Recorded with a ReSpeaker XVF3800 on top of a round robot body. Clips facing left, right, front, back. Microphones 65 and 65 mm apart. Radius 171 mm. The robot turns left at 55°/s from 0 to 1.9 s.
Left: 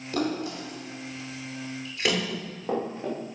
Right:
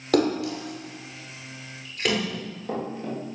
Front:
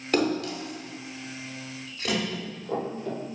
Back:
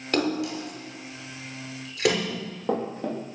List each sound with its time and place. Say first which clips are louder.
0.1 s a splash: right 6 dB, even; 90° right, 6 m; by 2.2 s 175° left, 6 m
2.3 s running footsteps: left 2 dB, back 3 dB; 160° left, 8.5 m